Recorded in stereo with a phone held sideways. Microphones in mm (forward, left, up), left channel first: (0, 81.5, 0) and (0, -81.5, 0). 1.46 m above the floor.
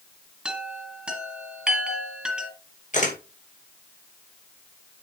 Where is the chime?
5° right (ahead or behind), 2.5 m.